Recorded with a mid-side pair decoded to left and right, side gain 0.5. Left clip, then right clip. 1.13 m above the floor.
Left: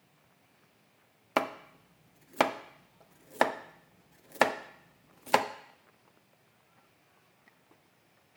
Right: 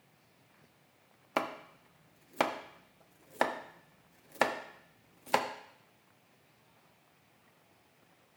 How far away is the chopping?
About 0.5 m.